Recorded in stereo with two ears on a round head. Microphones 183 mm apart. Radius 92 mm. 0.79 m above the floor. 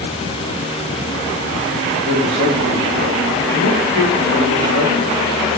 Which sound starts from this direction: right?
A man speaking, at 2.0 s.